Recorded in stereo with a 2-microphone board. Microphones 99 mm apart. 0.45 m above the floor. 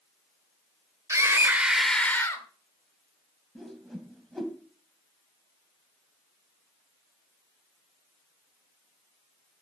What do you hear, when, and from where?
1.1 s a scream: 35° right (ahead or behind), 1.9 m; by 2.5 s 35° left (ahead or behind), 1.6 m
3.5 s a whoosh: centre (ahead or behind), 1.7 m